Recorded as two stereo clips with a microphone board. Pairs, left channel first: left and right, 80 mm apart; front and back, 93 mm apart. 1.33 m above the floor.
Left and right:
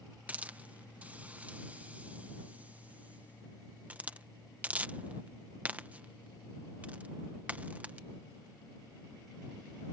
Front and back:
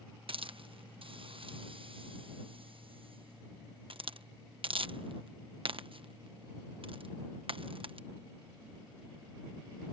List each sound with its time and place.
0.3 s a hiss: 160° right